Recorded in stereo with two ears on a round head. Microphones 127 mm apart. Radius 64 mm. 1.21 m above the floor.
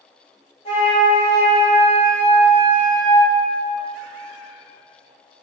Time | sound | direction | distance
0.7 | a flute | 45° left (ahead or behind) | 1.2 m